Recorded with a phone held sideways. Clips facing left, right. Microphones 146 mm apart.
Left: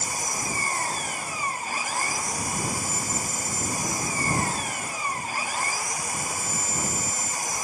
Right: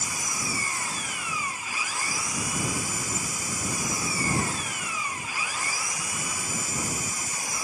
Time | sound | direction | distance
0.0 | an engine running | 45° left (ahead or behind) | ?